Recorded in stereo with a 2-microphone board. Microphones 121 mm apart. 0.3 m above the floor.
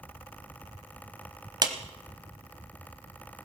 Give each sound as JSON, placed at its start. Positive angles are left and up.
{"t": 1.6, "sound": "a clap", "side_deg": -35, "distance_m": 1.4}